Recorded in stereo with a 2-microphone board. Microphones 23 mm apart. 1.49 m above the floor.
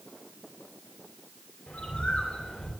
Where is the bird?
60° left (ahead or behind), 3 m.